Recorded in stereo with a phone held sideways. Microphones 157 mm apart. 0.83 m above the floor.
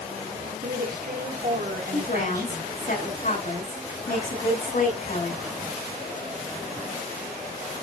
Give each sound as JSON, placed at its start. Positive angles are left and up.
{"t": 0.6, "sound": "a woman speaking", "side_deg": -70, "distance_m": 2.5}
{"t": 1.9, "sound": "a woman speaking", "side_deg": 60, "distance_m": 6.5}